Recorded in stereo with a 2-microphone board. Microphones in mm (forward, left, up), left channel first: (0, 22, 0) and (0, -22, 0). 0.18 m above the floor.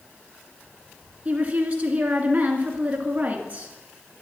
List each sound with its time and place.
1.2 s a woman speaking: 30° right (ahead or behind), 2.5 m